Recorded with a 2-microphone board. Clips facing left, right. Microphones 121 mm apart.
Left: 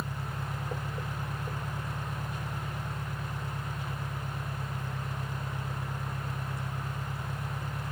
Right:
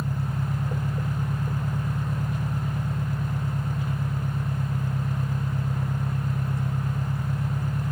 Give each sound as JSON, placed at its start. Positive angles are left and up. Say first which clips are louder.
{"t": 0.0, "sound": "an engine running", "louder": "right 7 dB", "side_deg": -45}